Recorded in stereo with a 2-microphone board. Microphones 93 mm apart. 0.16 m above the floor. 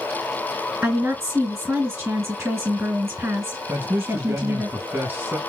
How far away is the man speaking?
About 1.1 m.